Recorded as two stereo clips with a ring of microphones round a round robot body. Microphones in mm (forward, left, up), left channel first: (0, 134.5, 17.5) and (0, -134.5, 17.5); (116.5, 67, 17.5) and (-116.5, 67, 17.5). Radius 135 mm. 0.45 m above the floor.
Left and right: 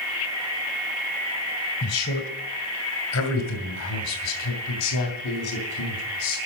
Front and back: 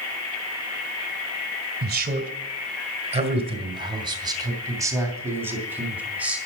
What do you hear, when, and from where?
1.8 s a man speaking: 135° left, 2 m; by 6.4 s 95° left, 3.5 m